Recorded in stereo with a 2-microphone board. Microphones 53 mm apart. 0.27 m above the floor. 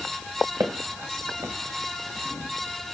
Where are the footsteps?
75° right (ahead or behind), 1.6 m.